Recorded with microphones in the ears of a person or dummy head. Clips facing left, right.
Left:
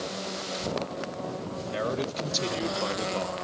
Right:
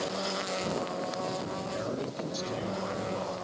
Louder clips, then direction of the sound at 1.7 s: Left 7 dB; 85° left.